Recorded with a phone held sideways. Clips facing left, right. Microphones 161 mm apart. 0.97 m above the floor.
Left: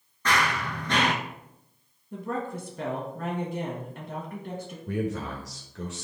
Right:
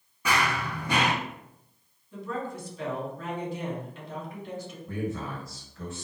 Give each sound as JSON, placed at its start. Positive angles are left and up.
{"t": 0.2, "sound": "running footsteps", "side_deg": -10, "distance_m": 0.9}
{"t": 2.1, "sound": "a woman speaking", "side_deg": 50, "distance_m": 1.5}
{"t": 4.9, "sound": "a man speaking", "side_deg": 70, "distance_m": 0.8}